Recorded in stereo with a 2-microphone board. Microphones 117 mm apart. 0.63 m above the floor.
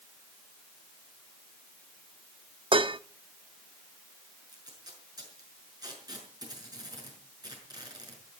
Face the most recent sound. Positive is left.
turn(degrees=-35)  # may be behind; listen again after turning